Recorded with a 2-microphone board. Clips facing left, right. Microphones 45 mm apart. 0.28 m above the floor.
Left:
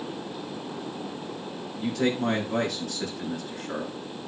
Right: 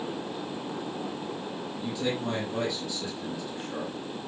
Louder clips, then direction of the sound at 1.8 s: Left 6 dB; 70° left (ahead or behind).